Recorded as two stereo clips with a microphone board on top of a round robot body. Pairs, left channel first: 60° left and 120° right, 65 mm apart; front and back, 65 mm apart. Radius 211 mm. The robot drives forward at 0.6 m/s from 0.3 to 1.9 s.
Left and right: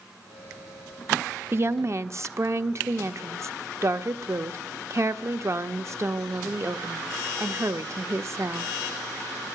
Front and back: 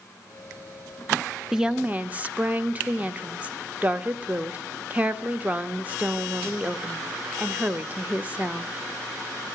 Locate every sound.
1.5 s a woman speaking: 95° right, 0.9 m; by 8.7 s 125° right, 0.9 m